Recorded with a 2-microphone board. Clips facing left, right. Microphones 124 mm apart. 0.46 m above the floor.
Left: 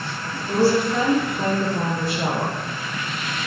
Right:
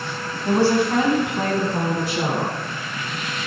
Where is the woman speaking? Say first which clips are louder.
Right 1 dB; 60° right (ahead or behind), 3.5 m; by 2.6 s 80° right, 5 m.